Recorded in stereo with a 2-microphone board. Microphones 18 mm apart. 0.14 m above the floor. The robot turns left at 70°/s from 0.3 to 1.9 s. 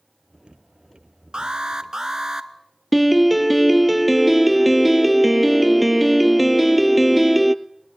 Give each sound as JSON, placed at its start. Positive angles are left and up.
{"t": 1.3, "sound": "an alarm", "azimuth_deg": -95, "distance_m": 1.1}
{"t": 2.9, "sound": "a piano", "side_deg": -5, "distance_m": 0.6}